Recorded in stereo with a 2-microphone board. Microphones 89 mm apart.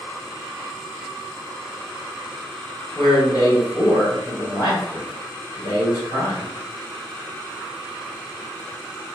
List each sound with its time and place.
3.0 s a man speaking: 45° left (ahead or behind), 1.7 m